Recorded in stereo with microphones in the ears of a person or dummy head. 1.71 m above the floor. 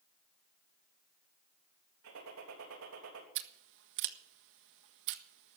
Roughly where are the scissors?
Right.